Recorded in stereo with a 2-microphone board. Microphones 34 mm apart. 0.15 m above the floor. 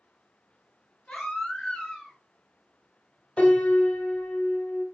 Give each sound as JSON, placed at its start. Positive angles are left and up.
{"t": 1.1, "sound": "a baby crying", "side_deg": 25, "distance_m": 1.8}
{"t": 3.4, "sound": "a piano", "side_deg": 40, "distance_m": 1.6}